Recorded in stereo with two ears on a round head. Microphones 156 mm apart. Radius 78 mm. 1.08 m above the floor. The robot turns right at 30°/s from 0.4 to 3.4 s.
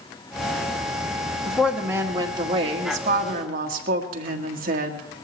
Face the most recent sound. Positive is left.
turn(degrees=-120)